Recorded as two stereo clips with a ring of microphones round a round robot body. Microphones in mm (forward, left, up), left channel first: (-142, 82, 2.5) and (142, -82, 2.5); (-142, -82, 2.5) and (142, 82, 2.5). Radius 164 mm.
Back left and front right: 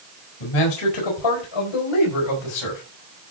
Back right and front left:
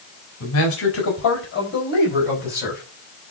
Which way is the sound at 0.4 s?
160° left.